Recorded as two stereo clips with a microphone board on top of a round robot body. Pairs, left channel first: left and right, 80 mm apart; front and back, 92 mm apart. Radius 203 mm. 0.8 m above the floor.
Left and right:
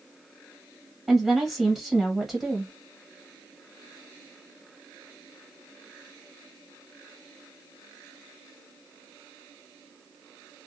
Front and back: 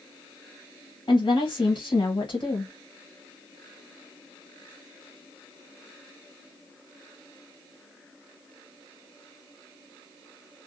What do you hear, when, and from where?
1.1 s a woman speaking: 5° right, 1.5 m